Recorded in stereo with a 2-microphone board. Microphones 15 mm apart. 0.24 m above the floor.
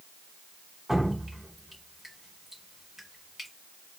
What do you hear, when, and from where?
0.9 s dripping: 20° right (ahead or behind), 1.2 m